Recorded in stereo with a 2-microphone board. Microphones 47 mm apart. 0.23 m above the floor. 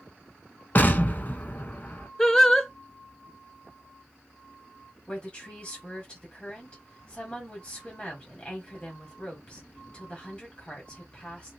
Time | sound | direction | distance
0.8 | an explosion | 40° left (ahead or behind) | 0.6 m
2.2 | singing | 10° left (ahead or behind) | 0.6 m
5.1 | a woman speaking | 20° left (ahead or behind) | 1.6 m